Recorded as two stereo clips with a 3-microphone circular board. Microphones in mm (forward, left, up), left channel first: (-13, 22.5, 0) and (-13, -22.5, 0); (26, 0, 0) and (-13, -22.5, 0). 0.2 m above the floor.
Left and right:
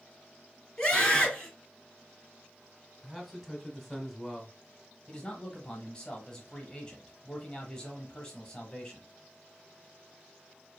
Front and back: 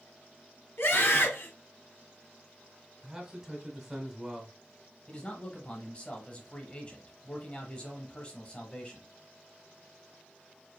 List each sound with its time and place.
0.8 s a scream: 15° left, 2.5 m
3.0 s a man speaking: 170° right, 1.1 m
5.1 s a man speaking: 40° left, 1.1 m